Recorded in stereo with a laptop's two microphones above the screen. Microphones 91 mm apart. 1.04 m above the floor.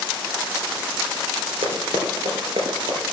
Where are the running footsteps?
75° right (ahead or behind), 4 m; by 3.0 s 80° right, 5 m.